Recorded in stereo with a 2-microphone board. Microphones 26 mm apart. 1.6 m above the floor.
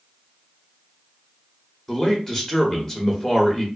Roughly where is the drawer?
I don't hear a drawer.